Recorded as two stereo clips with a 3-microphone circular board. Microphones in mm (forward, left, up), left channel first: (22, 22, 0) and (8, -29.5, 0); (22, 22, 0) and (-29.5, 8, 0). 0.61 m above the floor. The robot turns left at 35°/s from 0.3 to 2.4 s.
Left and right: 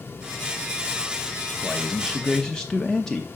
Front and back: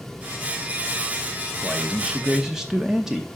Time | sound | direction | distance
1.6 | a man speaking | 155° left | 0.7 m